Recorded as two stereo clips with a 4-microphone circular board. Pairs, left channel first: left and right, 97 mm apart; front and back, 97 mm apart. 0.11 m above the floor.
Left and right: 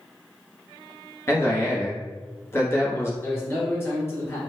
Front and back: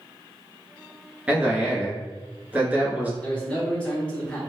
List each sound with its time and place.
1.3 s a man speaking: 120° left, 1.2 m
3.2 s a man speaking: 65° left, 1.5 m